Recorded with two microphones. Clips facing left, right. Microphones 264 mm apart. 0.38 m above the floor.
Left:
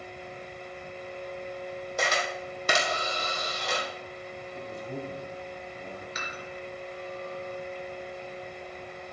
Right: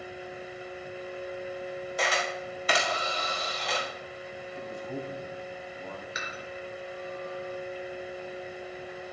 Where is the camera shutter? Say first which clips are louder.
Left 1 dB; 50° left (ahead or behind), 3.5 m.